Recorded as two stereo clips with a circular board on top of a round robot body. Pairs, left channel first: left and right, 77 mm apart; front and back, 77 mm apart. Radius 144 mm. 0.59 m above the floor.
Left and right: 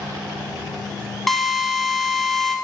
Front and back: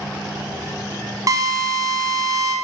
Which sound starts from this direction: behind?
A drill, at 1.3 s.